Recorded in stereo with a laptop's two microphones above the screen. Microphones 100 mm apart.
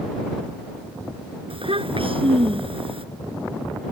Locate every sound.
1.5 s a child speaking: 65° right (ahead or behind)